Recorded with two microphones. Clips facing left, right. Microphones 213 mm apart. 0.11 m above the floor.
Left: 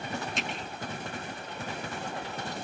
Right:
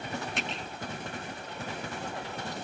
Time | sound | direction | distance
0.4 | a finger snap | 60° right (ahead or behind) | 5 m